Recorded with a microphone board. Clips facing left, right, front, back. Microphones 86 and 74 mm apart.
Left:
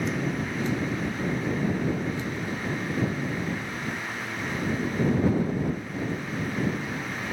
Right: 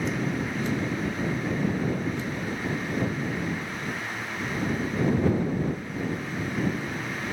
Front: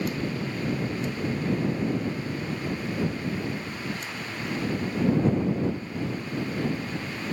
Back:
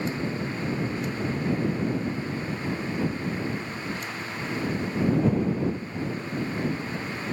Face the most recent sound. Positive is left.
No sound to turn to.